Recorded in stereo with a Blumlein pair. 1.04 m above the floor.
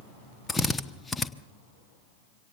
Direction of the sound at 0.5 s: 15° left.